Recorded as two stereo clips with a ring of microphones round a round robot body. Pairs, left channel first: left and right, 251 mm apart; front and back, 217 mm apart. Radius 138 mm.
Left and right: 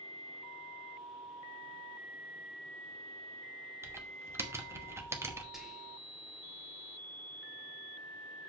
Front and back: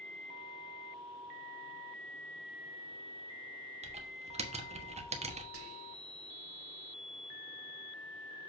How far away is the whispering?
About 1.8 m.